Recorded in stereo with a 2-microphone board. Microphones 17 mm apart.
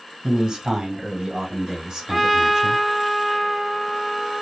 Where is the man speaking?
30° right (ahead or behind), 2.0 m; by 2.8 s 25° right (ahead or behind), 3 m.